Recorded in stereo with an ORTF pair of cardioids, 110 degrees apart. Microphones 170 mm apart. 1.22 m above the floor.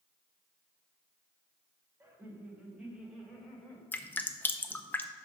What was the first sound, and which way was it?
Laughter, 15° right.